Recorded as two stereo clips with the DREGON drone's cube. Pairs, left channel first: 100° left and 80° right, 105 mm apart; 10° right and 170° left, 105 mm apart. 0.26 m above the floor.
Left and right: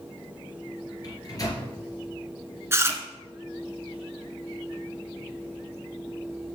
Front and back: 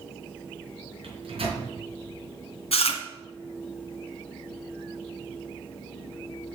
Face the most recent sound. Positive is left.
turn(degrees=-15)